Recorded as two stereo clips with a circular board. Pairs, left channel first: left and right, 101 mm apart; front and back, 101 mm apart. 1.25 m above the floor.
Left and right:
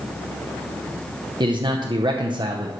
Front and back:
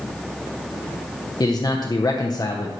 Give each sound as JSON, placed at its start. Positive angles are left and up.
{"t": 1.4, "sound": "a man speaking", "azimuth_deg": -50, "distance_m": 0.8}